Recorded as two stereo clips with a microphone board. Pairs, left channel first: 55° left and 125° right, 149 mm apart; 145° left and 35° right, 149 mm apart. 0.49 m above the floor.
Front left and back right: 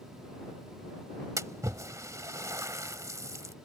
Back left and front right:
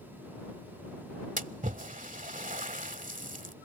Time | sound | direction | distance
1.4 | a splash | 55° right | ?